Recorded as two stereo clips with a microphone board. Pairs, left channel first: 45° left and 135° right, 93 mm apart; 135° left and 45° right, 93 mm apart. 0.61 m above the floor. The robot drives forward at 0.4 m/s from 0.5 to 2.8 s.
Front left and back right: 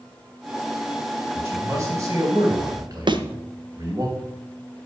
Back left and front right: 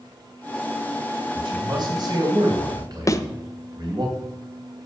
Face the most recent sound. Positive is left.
turn(degrees=-170)